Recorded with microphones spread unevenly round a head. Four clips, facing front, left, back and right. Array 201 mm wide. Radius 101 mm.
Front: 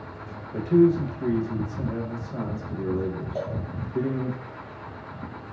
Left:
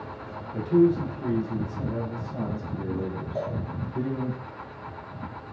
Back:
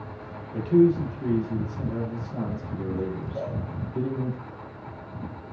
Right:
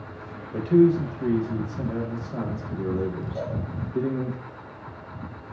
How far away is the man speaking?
About 0.8 m.